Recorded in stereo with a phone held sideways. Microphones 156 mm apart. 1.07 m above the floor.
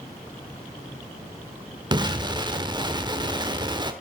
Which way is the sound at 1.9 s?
30° right (ahead or behind).